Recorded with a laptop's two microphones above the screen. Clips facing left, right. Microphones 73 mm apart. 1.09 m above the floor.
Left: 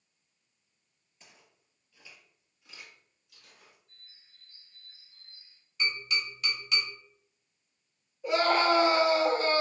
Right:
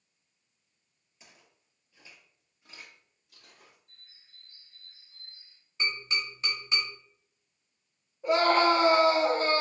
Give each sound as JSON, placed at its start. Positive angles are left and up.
{"t": 1.2, "sound": "footsteps", "side_deg": -10, "distance_m": 1.1}
{"t": 3.9, "sound": "a bird", "side_deg": -65, "distance_m": 0.7}
{"t": 5.8, "sound": "tapping", "side_deg": -30, "distance_m": 0.9}
{"t": 8.2, "sound": "a scream", "side_deg": -40, "distance_m": 1.1}